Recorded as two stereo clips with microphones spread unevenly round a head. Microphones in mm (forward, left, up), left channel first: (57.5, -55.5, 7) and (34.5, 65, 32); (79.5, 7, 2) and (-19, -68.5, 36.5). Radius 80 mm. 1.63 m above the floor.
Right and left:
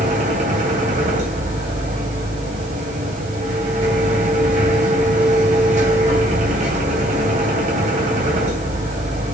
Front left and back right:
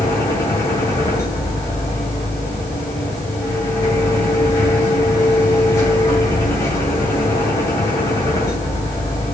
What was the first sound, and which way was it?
A machine running, 120° left.